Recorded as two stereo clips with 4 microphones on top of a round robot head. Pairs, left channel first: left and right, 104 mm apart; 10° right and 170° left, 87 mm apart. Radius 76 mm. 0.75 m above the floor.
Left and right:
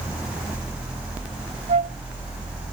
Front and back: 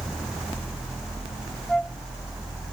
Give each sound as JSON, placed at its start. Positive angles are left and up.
{"t": 1.7, "sound": "a flute", "azimuth_deg": -100}